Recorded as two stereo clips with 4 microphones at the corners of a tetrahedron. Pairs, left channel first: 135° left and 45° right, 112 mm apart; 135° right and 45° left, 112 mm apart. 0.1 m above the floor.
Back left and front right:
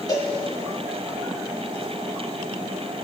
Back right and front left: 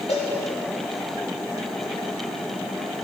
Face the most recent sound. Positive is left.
turn(degrees=-170)